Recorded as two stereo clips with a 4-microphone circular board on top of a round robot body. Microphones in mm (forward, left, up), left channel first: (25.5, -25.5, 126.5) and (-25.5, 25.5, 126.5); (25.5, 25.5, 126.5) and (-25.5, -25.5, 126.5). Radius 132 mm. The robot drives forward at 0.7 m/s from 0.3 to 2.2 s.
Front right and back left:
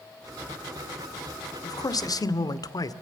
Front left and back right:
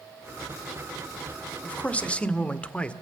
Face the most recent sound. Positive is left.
turn(degrees=-25)